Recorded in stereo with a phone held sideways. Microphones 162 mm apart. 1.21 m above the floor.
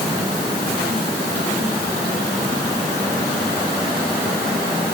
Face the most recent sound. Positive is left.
No sound to turn to.